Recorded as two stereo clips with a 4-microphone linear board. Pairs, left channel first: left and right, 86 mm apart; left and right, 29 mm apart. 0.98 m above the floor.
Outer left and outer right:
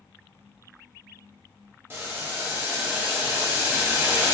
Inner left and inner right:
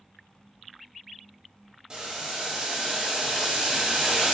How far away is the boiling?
About 0.8 m.